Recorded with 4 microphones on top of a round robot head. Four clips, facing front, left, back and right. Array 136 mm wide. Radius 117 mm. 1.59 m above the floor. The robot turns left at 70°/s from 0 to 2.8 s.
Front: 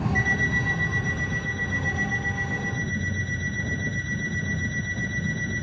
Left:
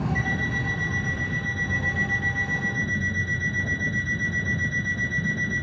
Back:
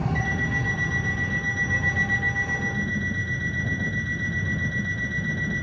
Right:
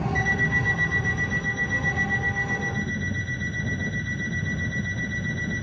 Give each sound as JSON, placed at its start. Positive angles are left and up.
{"t": 0.1, "sound": "an alarm clock", "azimuth_deg": -45, "distance_m": 7.5}